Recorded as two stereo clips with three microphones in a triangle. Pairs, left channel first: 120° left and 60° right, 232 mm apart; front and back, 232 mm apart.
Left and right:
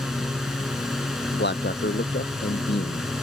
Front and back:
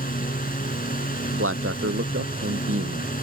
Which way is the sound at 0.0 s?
30° left.